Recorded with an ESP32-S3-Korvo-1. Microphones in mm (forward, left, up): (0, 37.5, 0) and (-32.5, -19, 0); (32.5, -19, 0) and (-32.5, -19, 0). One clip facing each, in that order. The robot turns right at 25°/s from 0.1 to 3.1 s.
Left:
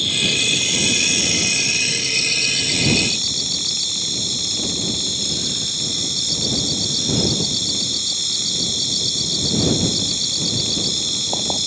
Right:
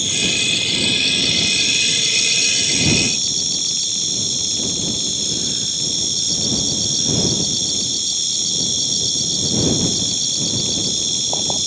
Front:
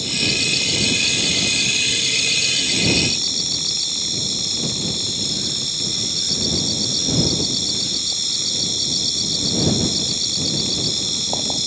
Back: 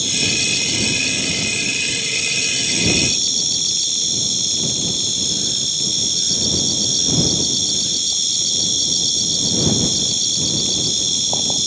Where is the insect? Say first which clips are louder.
Even, even; 40° right; by 11.7 s 35° left.